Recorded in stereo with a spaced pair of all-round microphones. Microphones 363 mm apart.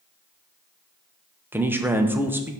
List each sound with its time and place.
1.5 s a man speaking: 5° right (ahead or behind), 0.8 m